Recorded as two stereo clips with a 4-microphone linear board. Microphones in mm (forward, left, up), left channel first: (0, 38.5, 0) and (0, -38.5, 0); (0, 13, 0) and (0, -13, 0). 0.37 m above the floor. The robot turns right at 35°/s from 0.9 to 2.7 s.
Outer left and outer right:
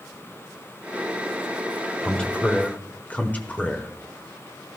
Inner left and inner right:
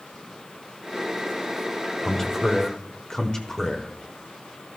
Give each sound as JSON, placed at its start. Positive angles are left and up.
{"t": 2.0, "sound": "a man speaking", "side_deg": 10, "distance_m": 1.1}